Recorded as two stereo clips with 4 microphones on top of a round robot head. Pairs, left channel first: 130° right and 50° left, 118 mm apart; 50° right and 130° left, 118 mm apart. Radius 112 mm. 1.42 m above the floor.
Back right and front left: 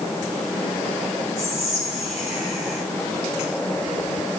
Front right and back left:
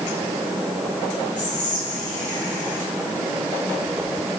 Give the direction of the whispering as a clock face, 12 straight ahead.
1 o'clock.